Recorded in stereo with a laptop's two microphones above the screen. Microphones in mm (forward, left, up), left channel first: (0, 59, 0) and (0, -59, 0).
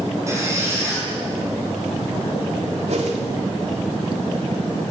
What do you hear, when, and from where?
0.3 s a squeak: 25° right (ahead or behind), 8.5 m
2.9 s a whoosh: 65° right (ahead or behind), 2.5 m